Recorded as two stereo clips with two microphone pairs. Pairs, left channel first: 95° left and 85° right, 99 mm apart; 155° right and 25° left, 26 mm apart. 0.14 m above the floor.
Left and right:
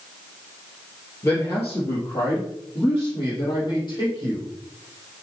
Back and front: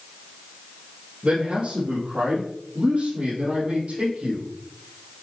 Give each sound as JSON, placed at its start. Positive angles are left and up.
{"t": 1.2, "sound": "a man speaking", "azimuth_deg": 35, "distance_m": 3.0}